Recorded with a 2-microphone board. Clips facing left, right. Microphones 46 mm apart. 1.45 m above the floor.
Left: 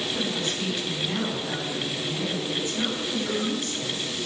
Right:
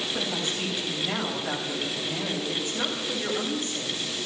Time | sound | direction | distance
0.1 | a woman speaking | 30° right (ahead or behind) | 7.5 m